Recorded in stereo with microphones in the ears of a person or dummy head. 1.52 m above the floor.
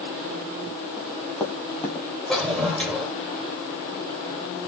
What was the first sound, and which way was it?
Running footsteps, 5° left (ahead or behind).